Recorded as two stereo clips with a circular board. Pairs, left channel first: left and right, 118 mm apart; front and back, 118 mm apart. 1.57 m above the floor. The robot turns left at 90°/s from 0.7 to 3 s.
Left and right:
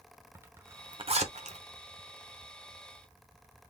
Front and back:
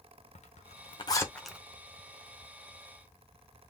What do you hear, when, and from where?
0.3 s a zipper: 20° right, 0.8 m; by 1.6 s 100° right, 0.8 m